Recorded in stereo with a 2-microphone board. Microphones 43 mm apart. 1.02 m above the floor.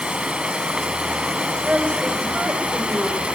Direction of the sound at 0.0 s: 30° right (ahead or behind).